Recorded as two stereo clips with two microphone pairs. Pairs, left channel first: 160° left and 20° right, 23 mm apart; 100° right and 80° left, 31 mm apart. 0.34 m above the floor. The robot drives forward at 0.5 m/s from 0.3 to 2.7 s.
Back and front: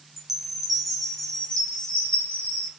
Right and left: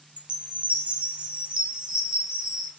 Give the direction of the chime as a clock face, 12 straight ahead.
11 o'clock.